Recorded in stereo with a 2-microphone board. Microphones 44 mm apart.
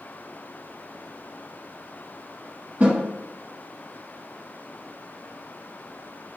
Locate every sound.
2.8 s a snare drum: 40° right (ahead or behind), 1.2 m